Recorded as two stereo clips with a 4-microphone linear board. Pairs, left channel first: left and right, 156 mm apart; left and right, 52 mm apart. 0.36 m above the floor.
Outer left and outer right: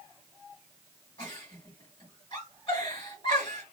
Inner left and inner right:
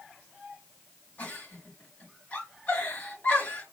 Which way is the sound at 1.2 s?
35° left (ahead or behind).